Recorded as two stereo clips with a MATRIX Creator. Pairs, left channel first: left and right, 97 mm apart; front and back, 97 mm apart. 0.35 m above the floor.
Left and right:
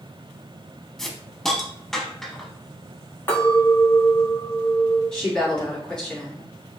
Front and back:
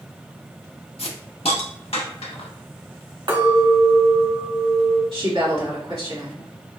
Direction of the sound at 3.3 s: 155° left.